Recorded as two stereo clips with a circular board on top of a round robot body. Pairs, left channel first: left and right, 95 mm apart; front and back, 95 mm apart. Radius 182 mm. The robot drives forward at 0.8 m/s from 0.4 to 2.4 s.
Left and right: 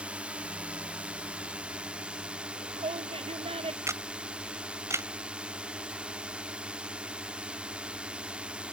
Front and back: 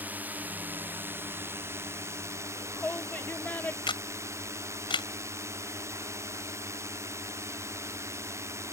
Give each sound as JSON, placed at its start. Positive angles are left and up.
{"t": 0.0, "sound": "a drone", "azimuth_deg": -145}
{"t": 2.4, "sound": "a shout", "azimuth_deg": -75}
{"t": 3.9, "sound": "a camera shutter", "azimuth_deg": -30}